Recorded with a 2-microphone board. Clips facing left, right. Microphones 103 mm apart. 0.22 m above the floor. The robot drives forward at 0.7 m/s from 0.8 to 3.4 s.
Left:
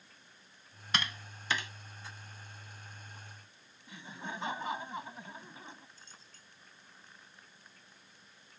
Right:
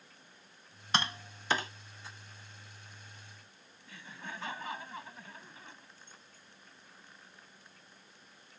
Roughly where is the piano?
I don't hear a piano.